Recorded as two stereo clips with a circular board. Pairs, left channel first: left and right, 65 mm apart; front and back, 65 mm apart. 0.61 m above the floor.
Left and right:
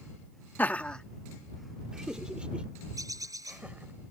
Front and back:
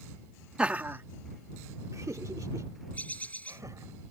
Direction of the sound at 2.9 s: 65° right.